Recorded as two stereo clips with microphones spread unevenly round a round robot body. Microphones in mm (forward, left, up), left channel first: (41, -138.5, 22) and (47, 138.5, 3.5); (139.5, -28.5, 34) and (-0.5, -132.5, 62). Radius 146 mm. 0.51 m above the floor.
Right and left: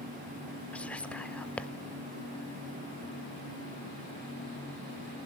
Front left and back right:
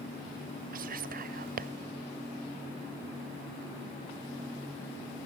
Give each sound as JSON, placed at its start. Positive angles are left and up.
{"t": 0.7, "sound": "whispering", "azimuth_deg": 180, "distance_m": 1.1}